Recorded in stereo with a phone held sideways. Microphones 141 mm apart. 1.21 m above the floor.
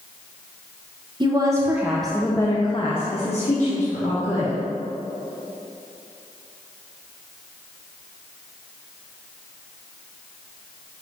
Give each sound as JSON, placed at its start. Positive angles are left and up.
{"t": 1.2, "sound": "a woman speaking", "side_deg": -30, "distance_m": 0.8}